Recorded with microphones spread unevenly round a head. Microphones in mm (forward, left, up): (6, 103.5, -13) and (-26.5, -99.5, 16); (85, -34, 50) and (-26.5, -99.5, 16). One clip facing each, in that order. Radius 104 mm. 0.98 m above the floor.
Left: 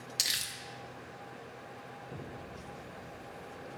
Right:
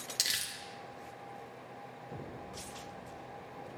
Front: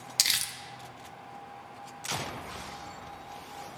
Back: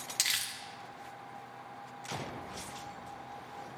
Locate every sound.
0.2 s crumpling: 15° left, 0.6 m